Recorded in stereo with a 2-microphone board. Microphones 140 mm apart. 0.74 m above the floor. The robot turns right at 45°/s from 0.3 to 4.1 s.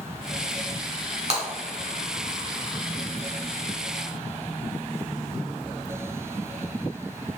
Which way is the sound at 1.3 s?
45° right (ahead or behind).